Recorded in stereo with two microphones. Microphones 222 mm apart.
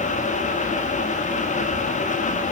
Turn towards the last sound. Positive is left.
No sound to turn to.